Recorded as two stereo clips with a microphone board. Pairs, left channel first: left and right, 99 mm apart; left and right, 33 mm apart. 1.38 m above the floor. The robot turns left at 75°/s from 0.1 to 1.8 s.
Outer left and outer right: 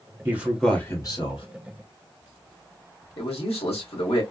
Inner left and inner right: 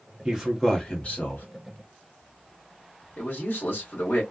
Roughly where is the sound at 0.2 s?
Behind right.